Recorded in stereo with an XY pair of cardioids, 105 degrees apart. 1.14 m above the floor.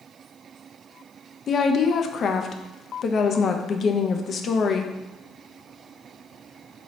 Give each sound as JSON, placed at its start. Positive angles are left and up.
{"t": 1.5, "sound": "a woman speaking", "azimuth_deg": 50, "distance_m": 0.5}